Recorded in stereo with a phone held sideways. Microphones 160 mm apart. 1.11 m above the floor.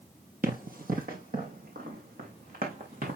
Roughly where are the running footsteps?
Right.